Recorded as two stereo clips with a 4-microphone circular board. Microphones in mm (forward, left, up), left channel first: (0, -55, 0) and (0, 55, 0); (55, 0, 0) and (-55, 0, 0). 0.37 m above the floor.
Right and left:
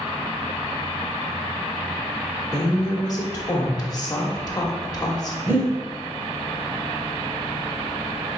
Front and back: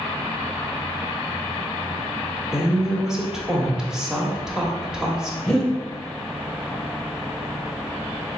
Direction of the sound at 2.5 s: 100° right.